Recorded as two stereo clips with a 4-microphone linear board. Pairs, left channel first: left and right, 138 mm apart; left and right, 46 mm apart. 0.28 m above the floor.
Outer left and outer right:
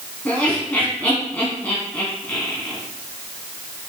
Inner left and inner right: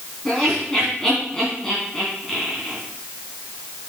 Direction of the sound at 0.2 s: 10° left (ahead or behind).